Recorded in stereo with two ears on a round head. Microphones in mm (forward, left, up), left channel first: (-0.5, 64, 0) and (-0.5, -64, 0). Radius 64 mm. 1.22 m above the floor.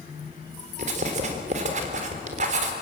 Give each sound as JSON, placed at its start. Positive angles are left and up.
{"t": 0.8, "sound": "writing", "side_deg": -55, "distance_m": 3.5}